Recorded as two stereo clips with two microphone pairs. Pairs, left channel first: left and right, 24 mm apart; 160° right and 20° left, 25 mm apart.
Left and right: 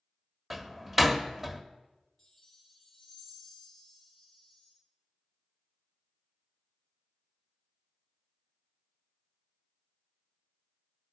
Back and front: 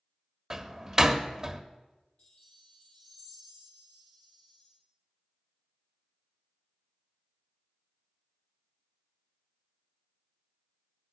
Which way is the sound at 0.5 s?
25° right.